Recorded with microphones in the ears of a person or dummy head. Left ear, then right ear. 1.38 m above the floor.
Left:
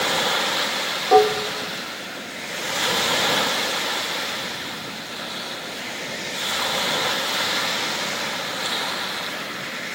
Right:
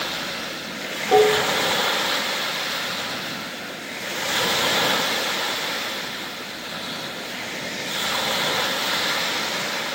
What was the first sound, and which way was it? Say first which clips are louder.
Dishes clattering: even; 35° left (ahead or behind).